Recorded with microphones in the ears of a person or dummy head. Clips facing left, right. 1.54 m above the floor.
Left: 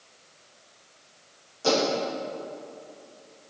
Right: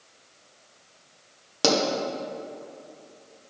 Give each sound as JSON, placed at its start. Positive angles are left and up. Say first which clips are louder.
{"t": 1.6, "sound": "a pop", "louder": "right 1 dB", "side_deg": -85, "distance_m": 1.2}